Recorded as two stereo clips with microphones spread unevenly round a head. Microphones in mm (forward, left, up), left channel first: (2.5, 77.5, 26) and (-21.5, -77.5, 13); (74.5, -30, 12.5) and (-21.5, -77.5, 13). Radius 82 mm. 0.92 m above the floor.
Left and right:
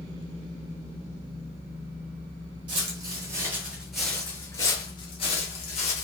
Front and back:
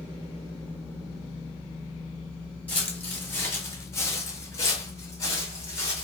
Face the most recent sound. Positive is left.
turn(degrees=90)